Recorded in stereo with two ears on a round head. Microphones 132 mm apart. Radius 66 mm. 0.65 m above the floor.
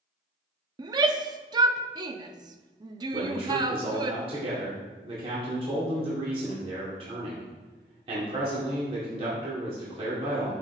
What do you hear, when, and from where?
0.8 s a shout: 30° right (ahead or behind), 0.7 m
3.1 s a man speaking: 45° right (ahead or behind), 2 m